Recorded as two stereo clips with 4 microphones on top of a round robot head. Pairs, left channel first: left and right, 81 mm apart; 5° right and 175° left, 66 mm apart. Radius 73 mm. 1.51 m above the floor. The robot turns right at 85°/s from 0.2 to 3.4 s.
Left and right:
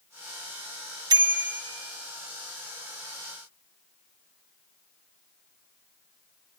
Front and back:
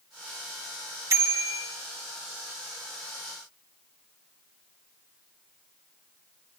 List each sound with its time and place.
1.1 s a bicycle bell: 130° right, 2 m; by 1.6 s 85° right, 2 m